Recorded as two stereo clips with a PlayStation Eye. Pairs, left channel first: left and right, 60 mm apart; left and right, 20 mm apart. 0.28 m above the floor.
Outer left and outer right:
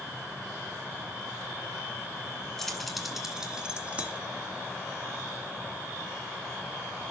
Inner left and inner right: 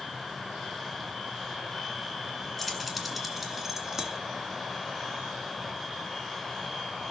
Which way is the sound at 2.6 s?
5° left (ahead or behind).